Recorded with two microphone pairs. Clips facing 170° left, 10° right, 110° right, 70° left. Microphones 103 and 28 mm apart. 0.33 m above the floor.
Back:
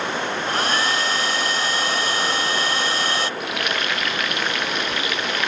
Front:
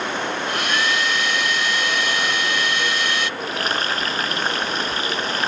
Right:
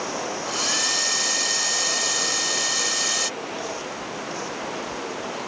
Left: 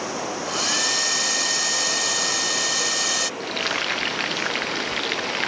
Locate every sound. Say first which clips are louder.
0.5 s a hair dryer: back 2 dB, left 2 dB; 150° left
3.4 s frying: front 1 dB, left 6 dB; 45° left